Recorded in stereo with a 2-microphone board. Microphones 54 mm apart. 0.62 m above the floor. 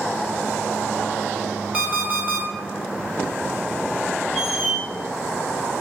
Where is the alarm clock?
25° right (ahead or behind), 1.1 m.